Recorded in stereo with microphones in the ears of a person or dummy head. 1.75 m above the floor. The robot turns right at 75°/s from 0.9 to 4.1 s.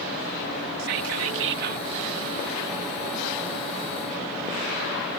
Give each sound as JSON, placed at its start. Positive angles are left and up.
{"t": 0.8, "sound": "whispering", "azimuth_deg": -115}